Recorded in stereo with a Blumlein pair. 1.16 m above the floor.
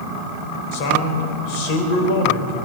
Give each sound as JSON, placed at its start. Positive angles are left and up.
{"t": 0.7, "sound": "a man speaking", "azimuth_deg": 45, "distance_m": 4.0}